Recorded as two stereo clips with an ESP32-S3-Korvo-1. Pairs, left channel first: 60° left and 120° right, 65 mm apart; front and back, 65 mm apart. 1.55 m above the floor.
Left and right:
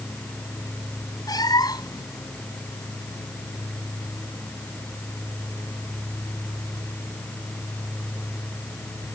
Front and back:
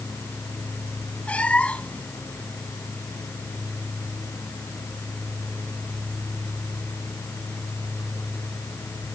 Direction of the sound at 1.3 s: 70° left.